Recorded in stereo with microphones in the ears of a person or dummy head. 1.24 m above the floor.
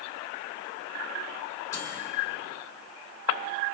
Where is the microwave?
20° left (ahead or behind), 3.5 m.